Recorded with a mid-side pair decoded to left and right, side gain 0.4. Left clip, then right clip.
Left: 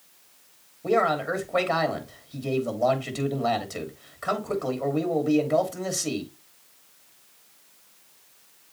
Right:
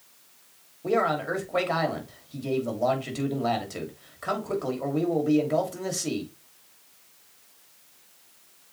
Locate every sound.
0.8 s a man speaking: 10° left, 3 m